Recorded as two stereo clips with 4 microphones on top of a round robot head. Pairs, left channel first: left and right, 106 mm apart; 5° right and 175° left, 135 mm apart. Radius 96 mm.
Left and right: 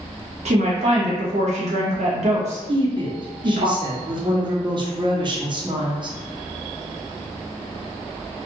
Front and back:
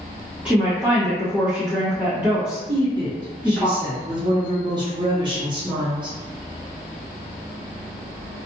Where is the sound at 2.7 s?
130° right, 0.8 m.